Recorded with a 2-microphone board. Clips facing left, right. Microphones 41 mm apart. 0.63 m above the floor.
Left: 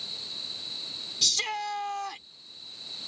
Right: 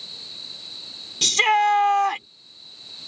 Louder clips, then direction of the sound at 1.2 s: Right 13 dB; 60° right (ahead or behind).